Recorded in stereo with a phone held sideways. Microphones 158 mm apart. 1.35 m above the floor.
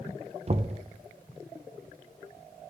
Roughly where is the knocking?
Right.